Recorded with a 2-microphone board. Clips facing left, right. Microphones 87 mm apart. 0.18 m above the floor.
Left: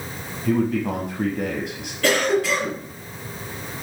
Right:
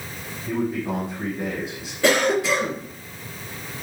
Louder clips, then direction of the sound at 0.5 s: Left 4 dB; 75° left (ahead or behind).